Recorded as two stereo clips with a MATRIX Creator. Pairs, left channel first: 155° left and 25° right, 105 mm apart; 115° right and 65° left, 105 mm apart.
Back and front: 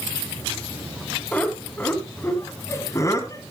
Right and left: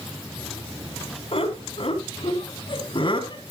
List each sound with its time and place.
1.3 s laughter: 125° right, 3 m; by 3.4 s 150° right, 3 m